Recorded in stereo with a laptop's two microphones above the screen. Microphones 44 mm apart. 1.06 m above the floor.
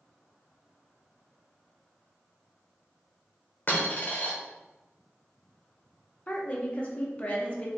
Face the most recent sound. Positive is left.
turn(degrees=30)  # may be behind; listen again after turning